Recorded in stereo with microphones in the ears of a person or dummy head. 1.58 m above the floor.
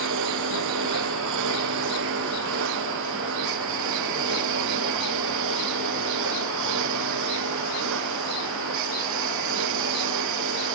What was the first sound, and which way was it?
A lawn mower, 70° right (ahead or behind).